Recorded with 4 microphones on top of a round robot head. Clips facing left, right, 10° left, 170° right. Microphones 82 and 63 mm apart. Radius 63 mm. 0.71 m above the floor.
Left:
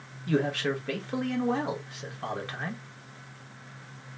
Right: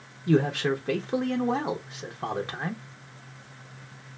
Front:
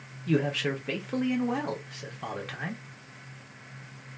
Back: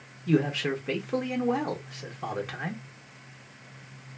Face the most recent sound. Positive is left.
turn(degrees=-90)